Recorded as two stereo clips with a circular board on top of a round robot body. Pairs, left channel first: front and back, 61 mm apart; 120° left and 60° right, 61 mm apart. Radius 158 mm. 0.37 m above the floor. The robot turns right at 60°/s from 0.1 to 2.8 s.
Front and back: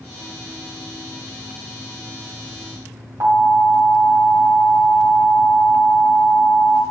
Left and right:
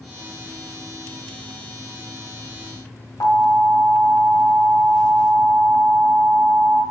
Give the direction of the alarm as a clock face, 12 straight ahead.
7 o'clock.